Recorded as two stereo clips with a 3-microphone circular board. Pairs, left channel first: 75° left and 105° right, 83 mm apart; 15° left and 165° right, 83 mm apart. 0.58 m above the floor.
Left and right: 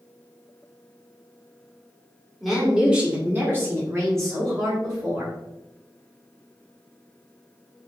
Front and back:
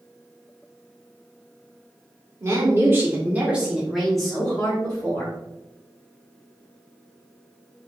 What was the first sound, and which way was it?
A woman speaking, 165° left.